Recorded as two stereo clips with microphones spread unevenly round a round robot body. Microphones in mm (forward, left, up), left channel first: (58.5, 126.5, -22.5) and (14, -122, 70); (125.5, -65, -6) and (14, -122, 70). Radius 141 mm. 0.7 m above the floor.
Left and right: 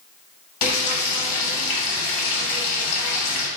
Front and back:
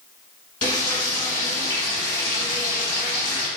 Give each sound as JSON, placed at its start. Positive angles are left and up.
{"t": 0.6, "sound": "frying", "azimuth_deg": 90, "distance_m": 1.1}